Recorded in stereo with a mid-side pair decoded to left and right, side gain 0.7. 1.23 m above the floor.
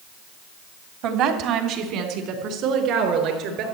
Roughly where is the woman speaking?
Ahead right.